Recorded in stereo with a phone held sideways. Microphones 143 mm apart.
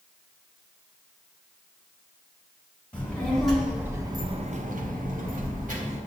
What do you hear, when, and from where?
2.9 s a child speaking: 10° left (ahead or behind), 1.2 m; by 6.0 s 60° right (ahead or behind), 1.3 m